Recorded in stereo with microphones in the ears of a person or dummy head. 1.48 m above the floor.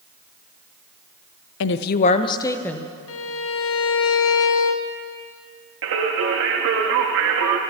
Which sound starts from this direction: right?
Singing, at 5.8 s.